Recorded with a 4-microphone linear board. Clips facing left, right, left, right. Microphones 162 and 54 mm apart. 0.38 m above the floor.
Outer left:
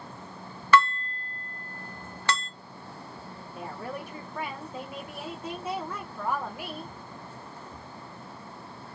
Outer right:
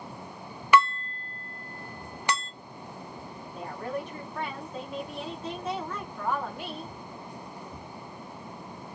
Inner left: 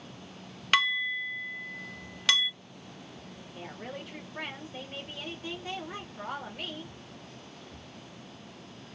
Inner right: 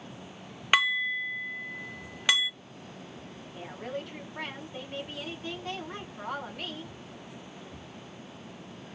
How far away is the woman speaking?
About 0.9 m.